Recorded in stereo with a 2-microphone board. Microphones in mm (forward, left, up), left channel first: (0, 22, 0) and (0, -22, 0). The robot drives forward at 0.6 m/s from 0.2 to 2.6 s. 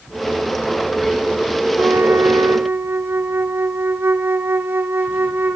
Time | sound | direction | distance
1.8 | a flute | 70° right (ahead or behind) | 0.6 m